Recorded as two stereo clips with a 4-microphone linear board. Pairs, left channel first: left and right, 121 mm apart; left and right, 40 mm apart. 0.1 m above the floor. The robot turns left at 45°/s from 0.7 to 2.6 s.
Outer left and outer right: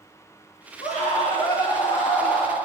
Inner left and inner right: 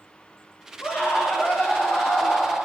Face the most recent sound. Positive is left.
turn(degrees=-5)